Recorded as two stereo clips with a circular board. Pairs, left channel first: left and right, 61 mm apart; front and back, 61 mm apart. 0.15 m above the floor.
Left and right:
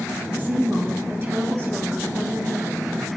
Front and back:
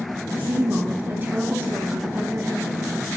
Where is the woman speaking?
130° right, 2.5 m.